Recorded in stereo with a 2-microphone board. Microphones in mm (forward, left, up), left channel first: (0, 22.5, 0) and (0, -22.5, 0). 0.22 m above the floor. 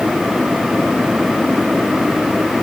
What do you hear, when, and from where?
Only background noise.